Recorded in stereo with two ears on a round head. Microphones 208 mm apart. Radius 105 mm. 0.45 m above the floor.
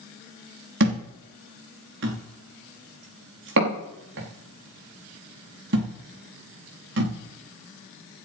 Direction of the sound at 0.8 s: 60° right (ahead or behind).